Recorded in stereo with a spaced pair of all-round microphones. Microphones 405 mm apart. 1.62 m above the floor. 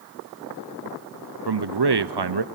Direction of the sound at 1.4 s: 75° right (ahead or behind).